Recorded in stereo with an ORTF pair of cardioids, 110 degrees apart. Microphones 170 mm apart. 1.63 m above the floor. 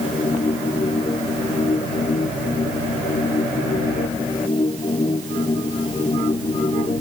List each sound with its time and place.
0.0 s a machine running: 35° left